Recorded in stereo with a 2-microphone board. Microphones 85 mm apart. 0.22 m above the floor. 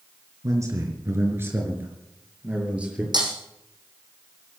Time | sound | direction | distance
0.4 | a man speaking | 40° right (ahead or behind) | 4 m
3.1 | breaking glass | 55° right (ahead or behind) | 4 m